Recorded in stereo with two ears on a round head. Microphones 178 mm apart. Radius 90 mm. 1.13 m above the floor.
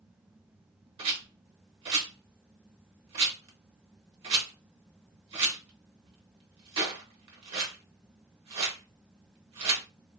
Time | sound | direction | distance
1.0 | a rattle | 30° right (ahead or behind) | 0.9 m